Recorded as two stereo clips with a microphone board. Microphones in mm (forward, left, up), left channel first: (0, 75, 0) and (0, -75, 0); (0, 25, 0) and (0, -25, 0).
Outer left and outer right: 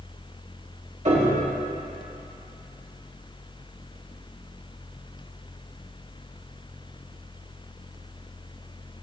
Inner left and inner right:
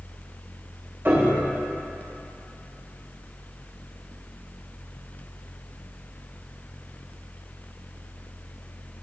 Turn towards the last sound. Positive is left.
turn(degrees=-50)  # may be behind; listen again after turning